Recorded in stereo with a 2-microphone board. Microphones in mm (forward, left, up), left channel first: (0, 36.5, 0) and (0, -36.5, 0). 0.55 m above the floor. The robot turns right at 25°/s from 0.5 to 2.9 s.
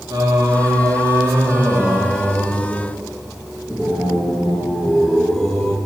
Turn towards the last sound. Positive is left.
turn(degrees=-5)